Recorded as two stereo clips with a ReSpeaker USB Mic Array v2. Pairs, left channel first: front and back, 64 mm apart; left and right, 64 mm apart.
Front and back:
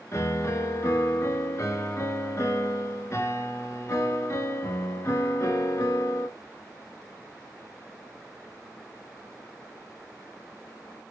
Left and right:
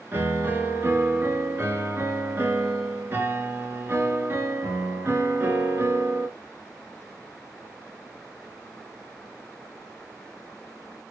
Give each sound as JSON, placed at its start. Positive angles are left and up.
{"t": 0.1, "sound": "a piano", "azimuth_deg": -40, "distance_m": 1.1}